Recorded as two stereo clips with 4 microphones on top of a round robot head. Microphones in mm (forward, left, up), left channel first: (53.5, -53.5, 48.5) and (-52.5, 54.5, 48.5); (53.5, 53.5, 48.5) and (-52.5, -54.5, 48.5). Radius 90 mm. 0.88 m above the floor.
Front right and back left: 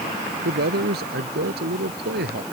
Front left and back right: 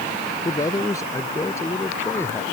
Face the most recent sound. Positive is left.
turn(degrees=120)